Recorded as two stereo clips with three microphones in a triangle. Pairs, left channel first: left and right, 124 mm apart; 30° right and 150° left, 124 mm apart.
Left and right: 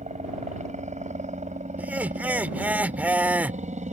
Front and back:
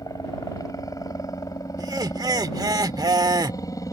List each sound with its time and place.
0.0 s a helicopter: 90° right
1.8 s laughter: 165° right